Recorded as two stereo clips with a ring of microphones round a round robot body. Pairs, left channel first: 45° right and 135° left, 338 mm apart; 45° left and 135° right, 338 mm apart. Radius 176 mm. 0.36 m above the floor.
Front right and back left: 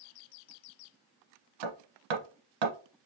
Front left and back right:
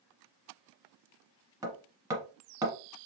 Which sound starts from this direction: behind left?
Hammering, at 1.6 s.